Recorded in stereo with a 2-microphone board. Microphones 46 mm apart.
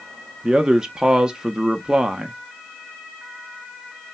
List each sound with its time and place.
0.4 s a man speaking: 15° right (ahead or behind), 0.6 m